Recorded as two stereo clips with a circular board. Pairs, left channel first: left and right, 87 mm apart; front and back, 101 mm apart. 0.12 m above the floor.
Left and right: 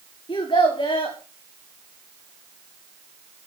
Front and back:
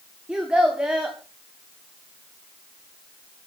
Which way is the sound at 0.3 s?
100° left.